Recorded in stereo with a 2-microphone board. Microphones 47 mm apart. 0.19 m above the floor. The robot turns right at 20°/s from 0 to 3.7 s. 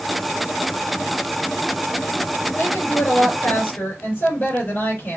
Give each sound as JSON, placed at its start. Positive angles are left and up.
{"t": 2.6, "sound": "a woman speaking", "side_deg": 65, "distance_m": 4.5}